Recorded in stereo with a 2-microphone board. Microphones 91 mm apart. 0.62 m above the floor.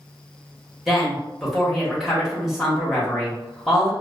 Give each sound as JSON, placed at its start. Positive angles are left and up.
{"t": 0.9, "sound": "a woman speaking", "side_deg": 0, "distance_m": 1.1}